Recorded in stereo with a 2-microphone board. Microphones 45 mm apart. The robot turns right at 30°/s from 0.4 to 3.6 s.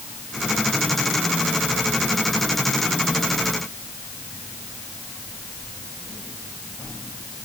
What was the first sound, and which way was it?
Only background noise.